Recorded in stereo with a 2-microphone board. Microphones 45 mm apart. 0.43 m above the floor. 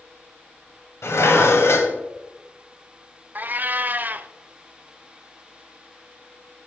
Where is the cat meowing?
40° right (ahead or behind), 0.5 m.